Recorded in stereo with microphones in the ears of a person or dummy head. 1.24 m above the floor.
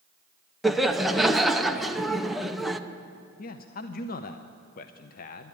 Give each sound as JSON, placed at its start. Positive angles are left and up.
{"t": 0.6, "sound": "laughter", "side_deg": 0, "distance_m": 0.7}
{"t": 3.4, "sound": "a man speaking", "side_deg": 45, "distance_m": 0.6}